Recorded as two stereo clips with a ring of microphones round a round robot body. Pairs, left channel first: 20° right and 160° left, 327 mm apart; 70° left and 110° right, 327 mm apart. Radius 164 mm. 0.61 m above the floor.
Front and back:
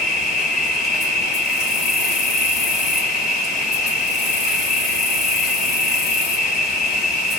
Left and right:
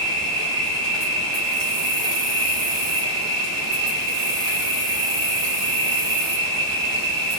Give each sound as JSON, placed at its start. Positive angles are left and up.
{"t": 0.0, "sound": "an insect", "azimuth_deg": -85, "distance_m": 2.5}